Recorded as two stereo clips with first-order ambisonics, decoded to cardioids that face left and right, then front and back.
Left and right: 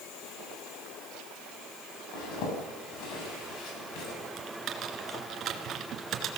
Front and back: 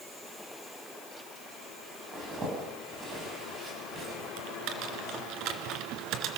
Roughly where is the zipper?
Behind left.